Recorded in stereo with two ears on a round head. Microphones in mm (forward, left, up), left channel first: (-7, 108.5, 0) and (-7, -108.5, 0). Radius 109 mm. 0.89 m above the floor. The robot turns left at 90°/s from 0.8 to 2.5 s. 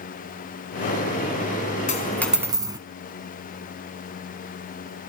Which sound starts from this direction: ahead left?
A dropped coin, at 1.9 s.